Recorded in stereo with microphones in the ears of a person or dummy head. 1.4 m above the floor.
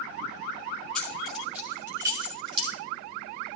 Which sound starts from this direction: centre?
Keys jangling, at 0.9 s.